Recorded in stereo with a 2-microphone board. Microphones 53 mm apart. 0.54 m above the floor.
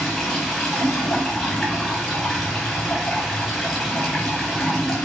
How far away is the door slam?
I don't hear a door slam.